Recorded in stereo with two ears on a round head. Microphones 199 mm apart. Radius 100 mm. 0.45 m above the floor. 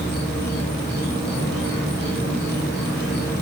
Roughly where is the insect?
Centre.